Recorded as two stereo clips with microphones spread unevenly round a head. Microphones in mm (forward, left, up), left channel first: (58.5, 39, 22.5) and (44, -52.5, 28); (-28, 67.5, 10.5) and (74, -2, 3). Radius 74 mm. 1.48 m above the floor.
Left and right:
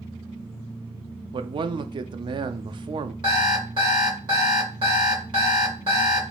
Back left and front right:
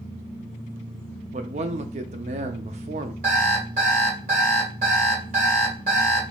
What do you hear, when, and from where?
1.3 s a man speaking: 65° right, 0.5 m
3.2 s an alarm clock: 75° right, 2.5 m